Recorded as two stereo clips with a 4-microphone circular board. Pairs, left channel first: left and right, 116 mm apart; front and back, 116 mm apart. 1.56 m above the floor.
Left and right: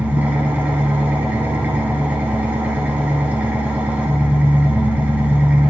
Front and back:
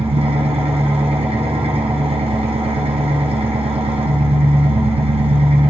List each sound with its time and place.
0.0 s an engine running: 165° right, 0.7 m